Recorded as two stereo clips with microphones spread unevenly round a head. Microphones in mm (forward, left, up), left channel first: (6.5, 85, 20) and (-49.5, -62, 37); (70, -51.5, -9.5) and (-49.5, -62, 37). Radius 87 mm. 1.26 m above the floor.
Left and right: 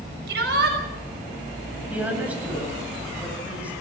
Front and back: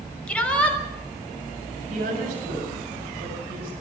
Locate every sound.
0.3 s a shout: 80° right, 6 m
1.9 s a woman speaking: 170° left, 7.5 m